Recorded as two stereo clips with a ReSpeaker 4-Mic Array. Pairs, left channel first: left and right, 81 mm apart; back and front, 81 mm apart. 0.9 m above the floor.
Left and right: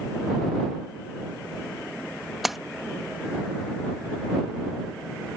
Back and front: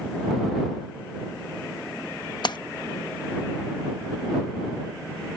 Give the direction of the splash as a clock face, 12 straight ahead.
6 o'clock.